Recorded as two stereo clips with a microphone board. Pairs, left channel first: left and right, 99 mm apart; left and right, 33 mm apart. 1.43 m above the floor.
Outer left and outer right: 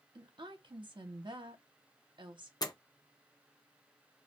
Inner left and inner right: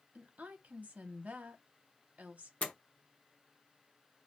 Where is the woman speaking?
55° right (ahead or behind), 0.8 m.